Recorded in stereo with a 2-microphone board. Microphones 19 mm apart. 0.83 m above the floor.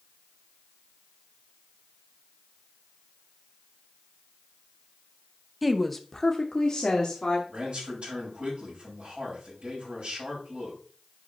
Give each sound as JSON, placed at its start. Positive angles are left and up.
{"t": 5.6, "sound": "a woman speaking", "side_deg": 0, "distance_m": 0.8}
{"t": 7.5, "sound": "a man speaking", "side_deg": -70, "distance_m": 6.0}